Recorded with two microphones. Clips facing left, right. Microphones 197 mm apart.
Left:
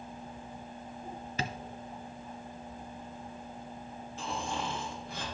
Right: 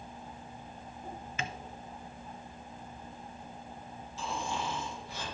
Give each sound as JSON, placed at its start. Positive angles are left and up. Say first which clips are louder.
{"t": 1.4, "sound": "tapping", "louder": "left 3 dB", "side_deg": 35, "distance_m": 0.5}
{"t": 4.2, "sound": "snoring", "louder": "even", "side_deg": 55, "distance_m": 4.0}